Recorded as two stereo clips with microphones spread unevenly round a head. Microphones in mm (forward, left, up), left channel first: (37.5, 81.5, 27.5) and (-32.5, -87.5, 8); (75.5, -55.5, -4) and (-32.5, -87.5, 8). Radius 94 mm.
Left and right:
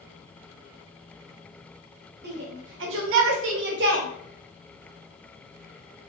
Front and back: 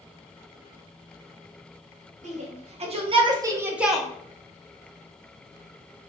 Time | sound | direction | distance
2.2 | a shout | 145° right | 0.9 m